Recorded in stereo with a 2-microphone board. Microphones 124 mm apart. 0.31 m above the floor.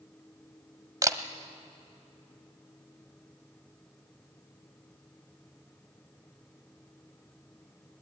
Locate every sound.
1.0 s a camera shutter: 30° right (ahead or behind), 1.2 m